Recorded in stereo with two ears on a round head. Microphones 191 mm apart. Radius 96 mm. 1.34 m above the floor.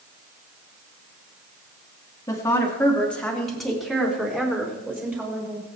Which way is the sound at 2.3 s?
15° left (ahead or behind).